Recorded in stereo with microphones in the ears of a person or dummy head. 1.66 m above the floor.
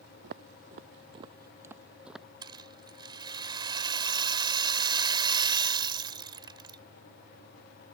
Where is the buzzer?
No buzzer in this recording.